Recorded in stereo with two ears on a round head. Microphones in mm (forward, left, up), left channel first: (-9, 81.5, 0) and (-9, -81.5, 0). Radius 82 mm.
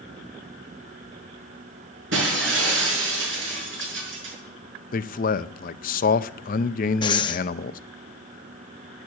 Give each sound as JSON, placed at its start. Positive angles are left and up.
{"t": 2.1, "sound": "breaking glass", "side_deg": -85, "distance_m": 6.5}
{"t": 4.9, "sound": "a man speaking", "side_deg": 50, "distance_m": 0.6}
{"t": 7.0, "sound": "breathing", "side_deg": 25, "distance_m": 0.7}